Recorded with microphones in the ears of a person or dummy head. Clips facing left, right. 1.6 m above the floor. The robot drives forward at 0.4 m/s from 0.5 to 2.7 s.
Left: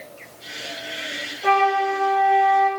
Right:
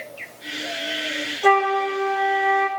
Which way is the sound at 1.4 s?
80° right.